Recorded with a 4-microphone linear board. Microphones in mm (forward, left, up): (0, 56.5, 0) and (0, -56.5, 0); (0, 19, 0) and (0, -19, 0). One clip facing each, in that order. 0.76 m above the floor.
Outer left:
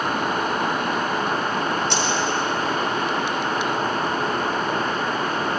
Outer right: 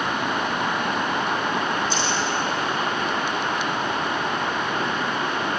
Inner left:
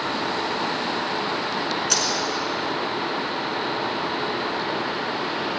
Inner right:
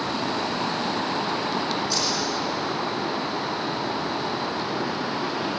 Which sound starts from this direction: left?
A dropped coin, at 1.9 s.